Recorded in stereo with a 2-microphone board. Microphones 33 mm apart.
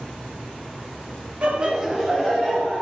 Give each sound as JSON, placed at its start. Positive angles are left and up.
{"t": 1.4, "sound": "laughter", "side_deg": -40, "distance_m": 0.7}